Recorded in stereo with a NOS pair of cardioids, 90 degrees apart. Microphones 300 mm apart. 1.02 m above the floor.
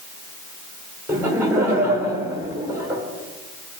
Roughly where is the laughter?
Ahead.